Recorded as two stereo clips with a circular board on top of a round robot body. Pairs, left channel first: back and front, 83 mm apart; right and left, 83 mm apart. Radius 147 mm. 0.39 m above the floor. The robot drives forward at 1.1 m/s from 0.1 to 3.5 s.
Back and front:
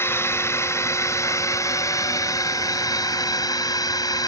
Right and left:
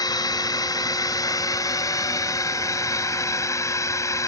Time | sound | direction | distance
0.0 | a drone | 120° right | ?